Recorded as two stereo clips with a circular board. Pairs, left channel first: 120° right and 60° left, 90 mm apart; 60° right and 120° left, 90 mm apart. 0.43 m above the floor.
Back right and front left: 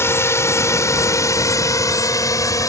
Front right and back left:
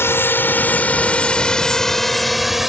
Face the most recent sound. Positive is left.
turn(degrees=-155)